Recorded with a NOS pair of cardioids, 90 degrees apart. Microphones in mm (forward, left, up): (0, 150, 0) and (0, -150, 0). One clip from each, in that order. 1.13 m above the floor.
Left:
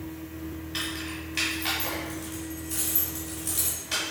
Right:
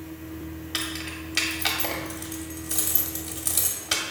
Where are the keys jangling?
55° right, 1.3 m.